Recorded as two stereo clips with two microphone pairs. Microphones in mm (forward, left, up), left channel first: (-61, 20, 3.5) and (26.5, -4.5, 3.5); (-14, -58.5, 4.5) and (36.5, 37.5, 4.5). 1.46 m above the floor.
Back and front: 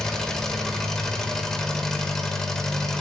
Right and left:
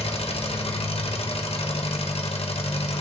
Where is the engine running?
110° right, 1.3 m.